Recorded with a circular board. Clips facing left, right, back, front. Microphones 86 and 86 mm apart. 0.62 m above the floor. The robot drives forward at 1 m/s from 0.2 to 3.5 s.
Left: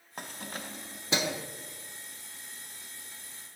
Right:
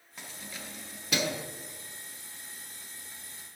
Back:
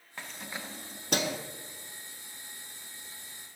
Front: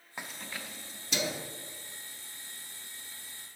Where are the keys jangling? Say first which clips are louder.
Left 4 dB, back 1 dB; 70° left, 0.5 m; by 1.4 s 160° left, 1.1 m.